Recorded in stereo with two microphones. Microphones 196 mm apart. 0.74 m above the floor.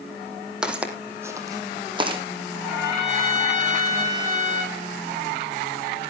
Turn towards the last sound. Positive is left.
turn(degrees=-20)  # may be behind; listen again after turning